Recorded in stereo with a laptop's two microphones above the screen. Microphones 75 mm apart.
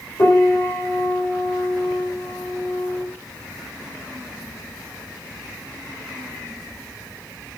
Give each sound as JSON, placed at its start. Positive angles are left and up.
{"t": 0.2, "sound": "a piano", "side_deg": 45, "distance_m": 3.5}